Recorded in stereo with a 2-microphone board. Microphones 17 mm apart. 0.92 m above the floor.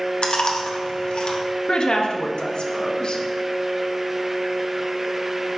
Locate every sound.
0.2 s chewing: 75° left (ahead or behind), 0.9 m
1.7 s a woman speaking: 65° left (ahead or behind), 0.9 m